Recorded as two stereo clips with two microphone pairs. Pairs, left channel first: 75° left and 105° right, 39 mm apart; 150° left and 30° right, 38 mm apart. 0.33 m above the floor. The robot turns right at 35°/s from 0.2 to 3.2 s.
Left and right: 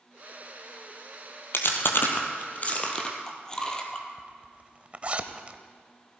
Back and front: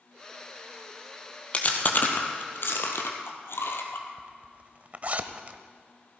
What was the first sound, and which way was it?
Chewing, 90° left.